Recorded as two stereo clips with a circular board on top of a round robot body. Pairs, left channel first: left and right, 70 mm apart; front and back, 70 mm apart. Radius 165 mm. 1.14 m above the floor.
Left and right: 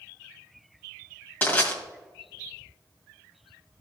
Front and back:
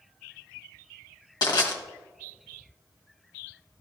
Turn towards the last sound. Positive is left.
turn(degrees=25)